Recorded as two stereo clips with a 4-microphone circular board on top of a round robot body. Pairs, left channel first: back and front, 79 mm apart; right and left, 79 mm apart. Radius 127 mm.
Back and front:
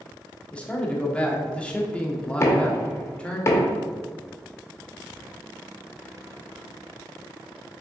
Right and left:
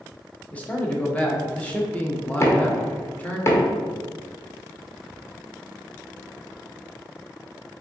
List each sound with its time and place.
0.5 s a man speaking: 125° right, 1.1 m
2.4 s knocking: 135° right, 1.1 m